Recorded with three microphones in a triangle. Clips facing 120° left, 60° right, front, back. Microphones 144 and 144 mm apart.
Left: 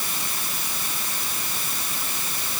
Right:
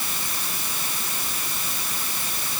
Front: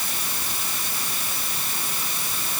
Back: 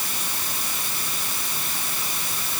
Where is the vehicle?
No vehicle in this recording.